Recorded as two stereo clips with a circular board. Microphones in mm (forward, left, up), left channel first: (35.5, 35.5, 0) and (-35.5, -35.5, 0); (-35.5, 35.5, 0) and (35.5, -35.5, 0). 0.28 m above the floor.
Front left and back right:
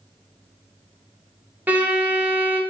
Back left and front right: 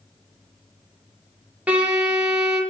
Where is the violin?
95° right, 0.6 m.